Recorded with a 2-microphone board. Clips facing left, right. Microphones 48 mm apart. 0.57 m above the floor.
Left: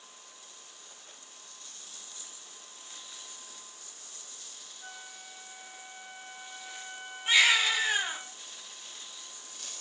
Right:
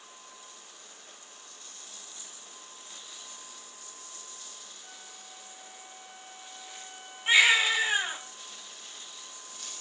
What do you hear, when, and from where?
4.8 s a flute: 50° left (ahead or behind), 0.6 m
7.3 s a baby crying: 20° right (ahead or behind), 1.1 m